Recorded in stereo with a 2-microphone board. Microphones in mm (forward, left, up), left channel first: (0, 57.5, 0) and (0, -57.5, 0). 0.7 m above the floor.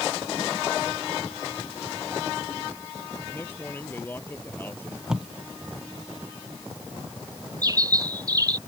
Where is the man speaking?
20° left (ahead or behind).